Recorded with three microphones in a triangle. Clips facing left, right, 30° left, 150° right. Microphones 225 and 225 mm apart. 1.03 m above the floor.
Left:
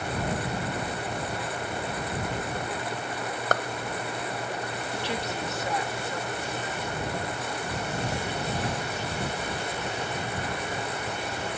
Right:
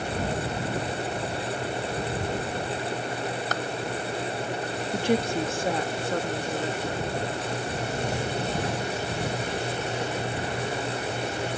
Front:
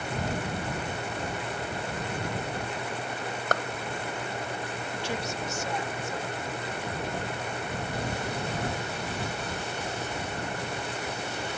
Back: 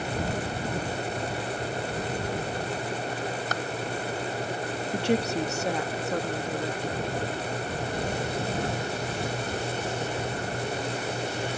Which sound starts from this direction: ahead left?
A clap, at 3.5 s.